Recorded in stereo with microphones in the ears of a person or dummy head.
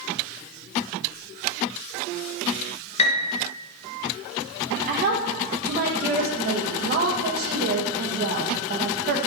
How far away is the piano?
About 1.1 m.